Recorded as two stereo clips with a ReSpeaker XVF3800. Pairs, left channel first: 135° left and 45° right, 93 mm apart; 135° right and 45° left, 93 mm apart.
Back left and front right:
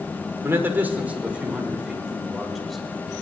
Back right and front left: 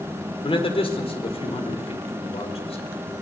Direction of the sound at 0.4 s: 110° right.